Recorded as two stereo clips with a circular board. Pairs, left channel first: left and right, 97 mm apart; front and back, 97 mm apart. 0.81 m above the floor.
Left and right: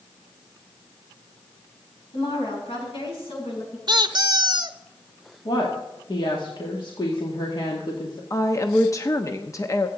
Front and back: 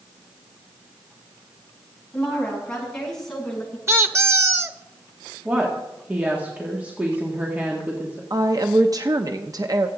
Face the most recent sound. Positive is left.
turn(degrees=140)